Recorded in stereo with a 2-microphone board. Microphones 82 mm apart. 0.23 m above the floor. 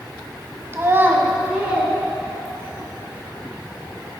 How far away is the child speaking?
About 0.8 m.